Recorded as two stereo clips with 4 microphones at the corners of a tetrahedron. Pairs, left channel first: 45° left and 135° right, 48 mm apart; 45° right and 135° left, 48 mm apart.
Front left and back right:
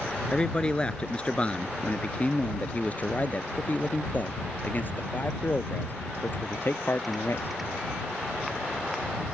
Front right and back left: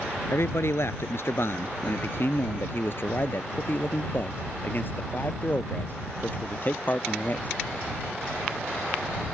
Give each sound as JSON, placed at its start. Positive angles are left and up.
{"t": 0.3, "sound": "a man speaking", "azimuth_deg": -25}